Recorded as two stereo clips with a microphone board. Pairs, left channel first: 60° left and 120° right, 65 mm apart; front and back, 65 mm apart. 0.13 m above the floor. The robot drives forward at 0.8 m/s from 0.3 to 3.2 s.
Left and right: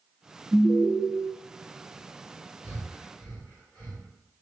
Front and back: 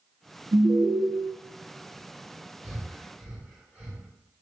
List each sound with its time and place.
0.5 s an alarm: 165° left, 1.2 m; by 1.0 s 170° left, 1.6 m
2.6 s breathing: 110° left, 1.8 m; by 4.1 s 135° left, 2.0 m